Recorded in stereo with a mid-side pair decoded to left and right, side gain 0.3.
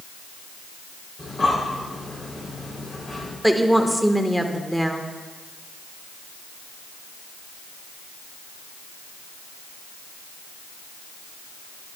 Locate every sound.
1.2 s breathing: 35° left, 3.5 m
3.4 s a woman speaking: 5° right, 1.4 m